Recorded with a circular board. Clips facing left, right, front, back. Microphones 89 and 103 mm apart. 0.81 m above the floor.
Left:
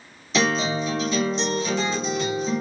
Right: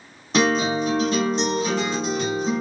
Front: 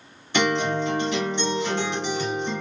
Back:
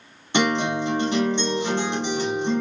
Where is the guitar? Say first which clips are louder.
Right 3 dB, back 1 dB; 120° right, 1.3 m.